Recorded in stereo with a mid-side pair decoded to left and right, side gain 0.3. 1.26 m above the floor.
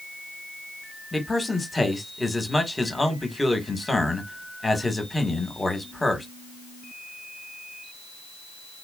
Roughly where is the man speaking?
Ahead.